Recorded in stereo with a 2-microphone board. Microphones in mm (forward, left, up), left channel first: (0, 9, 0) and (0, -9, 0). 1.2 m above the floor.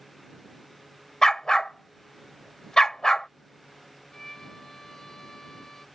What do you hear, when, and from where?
1.2 s a dog barking: 40° left (ahead or behind)
4.1 s a violin: 35° left (ahead or behind)